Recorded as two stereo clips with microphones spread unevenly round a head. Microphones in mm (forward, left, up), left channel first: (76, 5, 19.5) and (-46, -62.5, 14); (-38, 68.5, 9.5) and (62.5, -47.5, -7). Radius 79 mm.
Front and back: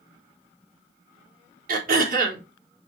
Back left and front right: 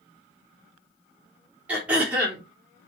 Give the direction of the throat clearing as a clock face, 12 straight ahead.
4 o'clock.